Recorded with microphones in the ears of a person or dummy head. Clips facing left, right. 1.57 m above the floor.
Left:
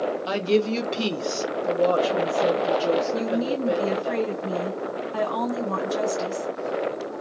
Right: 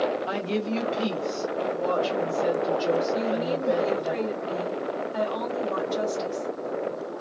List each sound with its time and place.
0.3 s a woman speaking: 55° left (ahead or behind), 0.9 m; by 4.1 s 20° left (ahead or behind), 1.5 m
3.1 s a woman speaking: 65° left (ahead or behind), 1.7 m